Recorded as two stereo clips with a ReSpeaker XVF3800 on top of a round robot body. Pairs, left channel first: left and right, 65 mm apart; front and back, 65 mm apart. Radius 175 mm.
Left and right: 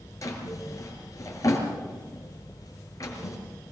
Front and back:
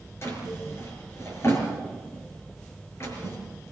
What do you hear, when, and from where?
0.2 s a drawer: 50° left, 4.5 m